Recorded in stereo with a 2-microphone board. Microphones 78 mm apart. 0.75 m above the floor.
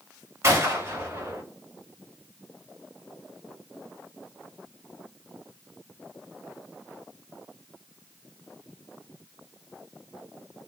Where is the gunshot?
35° right (ahead or behind), 1.7 m.